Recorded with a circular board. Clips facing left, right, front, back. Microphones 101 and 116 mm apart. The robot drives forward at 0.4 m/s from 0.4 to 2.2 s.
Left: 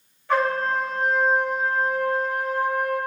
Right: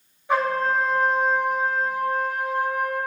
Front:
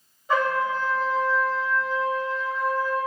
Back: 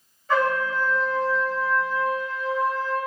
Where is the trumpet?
50° right, 1.5 m; by 3.0 s 125° right, 1.5 m.